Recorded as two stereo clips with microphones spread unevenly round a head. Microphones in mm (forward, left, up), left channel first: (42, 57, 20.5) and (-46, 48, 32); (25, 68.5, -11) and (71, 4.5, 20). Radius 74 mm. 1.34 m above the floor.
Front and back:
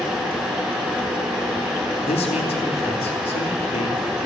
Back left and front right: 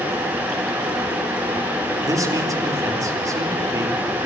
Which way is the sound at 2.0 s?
5° right.